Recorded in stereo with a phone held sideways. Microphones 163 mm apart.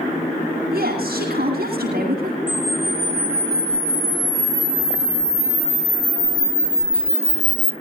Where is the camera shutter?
50° right (ahead or behind), 2 m.